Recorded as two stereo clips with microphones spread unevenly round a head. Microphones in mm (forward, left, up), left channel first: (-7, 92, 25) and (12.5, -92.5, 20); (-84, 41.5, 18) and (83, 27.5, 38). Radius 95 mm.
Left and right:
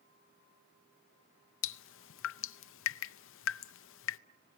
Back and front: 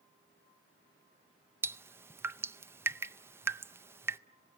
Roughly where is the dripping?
Left.